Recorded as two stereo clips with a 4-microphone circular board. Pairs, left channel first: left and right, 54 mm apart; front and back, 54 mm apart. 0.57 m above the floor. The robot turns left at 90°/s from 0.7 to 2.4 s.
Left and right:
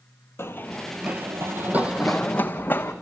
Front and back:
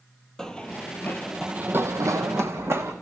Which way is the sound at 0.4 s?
75° left.